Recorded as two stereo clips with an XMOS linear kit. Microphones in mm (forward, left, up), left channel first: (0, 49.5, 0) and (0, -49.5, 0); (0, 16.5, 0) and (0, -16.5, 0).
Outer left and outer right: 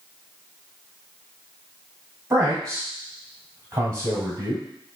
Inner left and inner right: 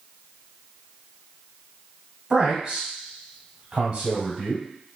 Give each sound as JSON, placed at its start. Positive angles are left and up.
{"t": 2.3, "sound": "a man speaking", "side_deg": -35, "distance_m": 1.9}